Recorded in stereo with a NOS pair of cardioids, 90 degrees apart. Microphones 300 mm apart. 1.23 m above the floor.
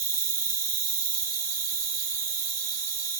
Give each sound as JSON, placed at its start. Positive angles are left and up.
{"t": 0.0, "sound": "an insect", "azimuth_deg": -55, "distance_m": 1.4}